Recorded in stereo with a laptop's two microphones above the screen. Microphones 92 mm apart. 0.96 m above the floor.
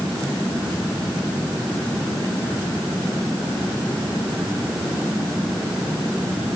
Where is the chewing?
No chewing in this recording.